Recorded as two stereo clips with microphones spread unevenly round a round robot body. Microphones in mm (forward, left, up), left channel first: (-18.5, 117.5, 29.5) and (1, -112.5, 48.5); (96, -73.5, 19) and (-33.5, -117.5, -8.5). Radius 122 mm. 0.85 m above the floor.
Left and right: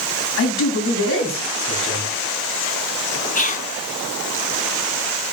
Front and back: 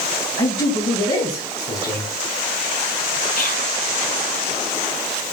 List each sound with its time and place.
0.4 s a man speaking: 65° left, 3 m
3.4 s whispering: 50° left, 0.9 m